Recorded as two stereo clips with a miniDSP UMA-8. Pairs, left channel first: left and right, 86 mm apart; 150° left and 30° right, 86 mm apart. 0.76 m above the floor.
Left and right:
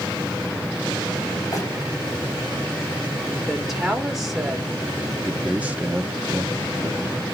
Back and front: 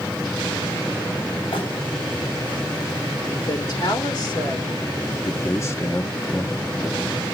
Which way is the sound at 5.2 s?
160° right.